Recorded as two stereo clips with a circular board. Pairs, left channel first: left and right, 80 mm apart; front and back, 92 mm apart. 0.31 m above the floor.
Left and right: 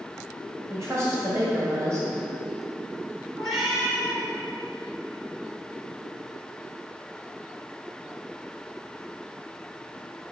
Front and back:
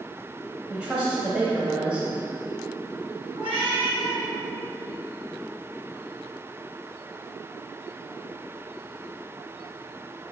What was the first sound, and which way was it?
A woman speaking, 110° right.